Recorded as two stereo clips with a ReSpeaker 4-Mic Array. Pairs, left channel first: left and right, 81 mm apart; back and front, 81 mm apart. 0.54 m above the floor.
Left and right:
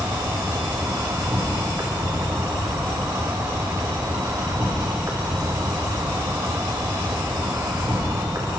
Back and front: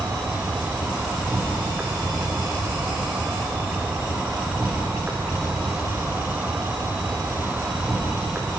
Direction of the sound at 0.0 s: 65° right.